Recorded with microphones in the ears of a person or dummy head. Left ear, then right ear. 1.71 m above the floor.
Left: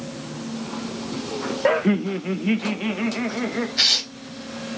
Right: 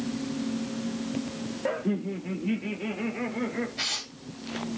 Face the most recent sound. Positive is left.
turn(degrees=55)  # may be behind; listen again after turning